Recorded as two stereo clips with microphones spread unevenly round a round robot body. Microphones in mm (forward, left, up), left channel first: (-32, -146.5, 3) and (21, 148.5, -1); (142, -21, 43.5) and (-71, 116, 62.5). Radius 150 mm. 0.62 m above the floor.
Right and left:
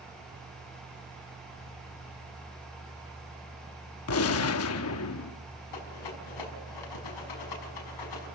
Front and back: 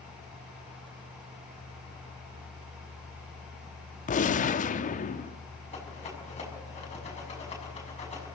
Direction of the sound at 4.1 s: 80° right.